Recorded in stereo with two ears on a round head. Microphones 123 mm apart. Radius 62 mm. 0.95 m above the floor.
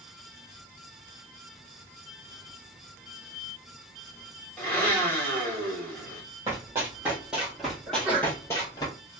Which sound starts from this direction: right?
Running footsteps, at 6.5 s.